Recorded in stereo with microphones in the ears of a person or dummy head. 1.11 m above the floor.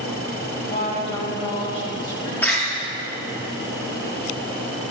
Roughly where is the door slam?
Centre.